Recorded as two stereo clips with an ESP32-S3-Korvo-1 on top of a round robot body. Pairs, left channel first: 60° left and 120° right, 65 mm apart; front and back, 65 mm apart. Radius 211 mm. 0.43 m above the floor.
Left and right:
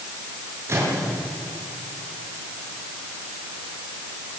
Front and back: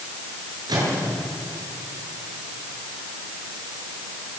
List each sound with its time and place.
0.7 s a microwave: 170° right, 7.5 m